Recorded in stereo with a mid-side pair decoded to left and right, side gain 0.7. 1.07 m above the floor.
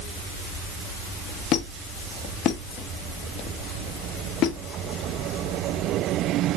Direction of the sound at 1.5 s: 50° left.